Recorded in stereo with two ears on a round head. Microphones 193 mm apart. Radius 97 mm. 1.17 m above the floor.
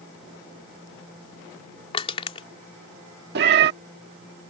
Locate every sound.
1.9 s crushing: 25° left (ahead or behind)
3.4 s a cat meowing: 55° right (ahead or behind)